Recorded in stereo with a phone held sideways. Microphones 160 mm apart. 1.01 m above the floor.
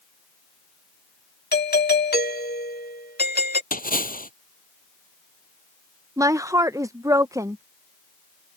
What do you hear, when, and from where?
1.5 s a doorbell: 80° left
3.7 s a splash: 60° left (ahead or behind)
6.2 s a woman speaking: 20° right (ahead or behind)